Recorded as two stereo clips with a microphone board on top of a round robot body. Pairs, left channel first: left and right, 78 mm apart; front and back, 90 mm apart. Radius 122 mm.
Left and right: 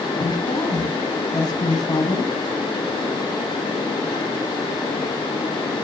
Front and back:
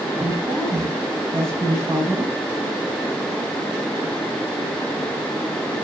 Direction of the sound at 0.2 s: 120° left.